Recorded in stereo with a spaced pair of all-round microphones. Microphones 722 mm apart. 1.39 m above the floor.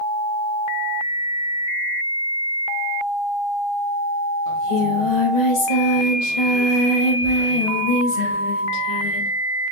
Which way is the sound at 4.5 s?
70° left (ahead or behind).